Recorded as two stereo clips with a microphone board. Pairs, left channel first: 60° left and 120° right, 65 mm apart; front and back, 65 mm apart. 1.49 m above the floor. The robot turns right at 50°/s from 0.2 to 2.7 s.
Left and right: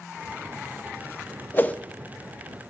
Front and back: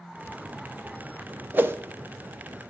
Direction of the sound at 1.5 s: 120° left.